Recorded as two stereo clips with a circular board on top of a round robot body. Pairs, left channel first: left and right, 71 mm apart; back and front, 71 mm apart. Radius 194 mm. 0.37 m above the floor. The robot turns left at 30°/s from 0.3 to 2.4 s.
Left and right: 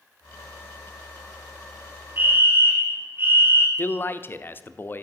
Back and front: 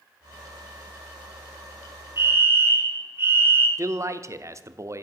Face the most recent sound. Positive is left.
turn(degrees=35)